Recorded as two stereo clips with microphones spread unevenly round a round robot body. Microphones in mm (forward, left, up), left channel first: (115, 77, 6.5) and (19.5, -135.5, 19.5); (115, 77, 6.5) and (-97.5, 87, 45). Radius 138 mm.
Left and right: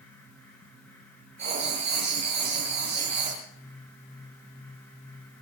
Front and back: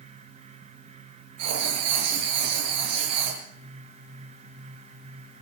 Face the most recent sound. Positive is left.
turn(degrees=175)